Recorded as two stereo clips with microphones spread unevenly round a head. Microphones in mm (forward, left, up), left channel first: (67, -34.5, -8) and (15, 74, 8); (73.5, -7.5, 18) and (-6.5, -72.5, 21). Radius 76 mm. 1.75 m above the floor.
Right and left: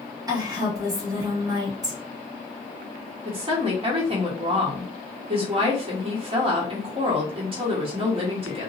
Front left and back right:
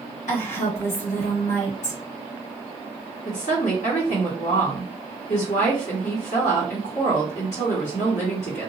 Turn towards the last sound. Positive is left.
turn(degrees=75)